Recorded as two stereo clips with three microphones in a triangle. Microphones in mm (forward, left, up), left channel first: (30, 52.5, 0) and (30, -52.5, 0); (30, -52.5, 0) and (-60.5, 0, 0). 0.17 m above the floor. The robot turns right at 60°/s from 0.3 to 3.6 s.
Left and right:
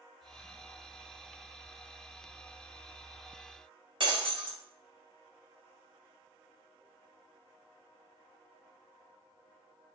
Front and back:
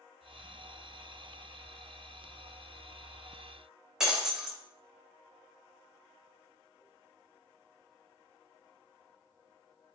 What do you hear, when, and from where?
4.0 s breaking glass: 125° right, 1.1 m